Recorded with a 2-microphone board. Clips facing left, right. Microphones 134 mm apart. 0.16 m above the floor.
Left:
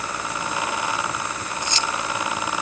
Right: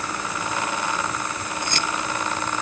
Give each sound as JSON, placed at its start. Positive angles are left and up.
{"t": 1.6, "sound": "keys jangling", "side_deg": -55}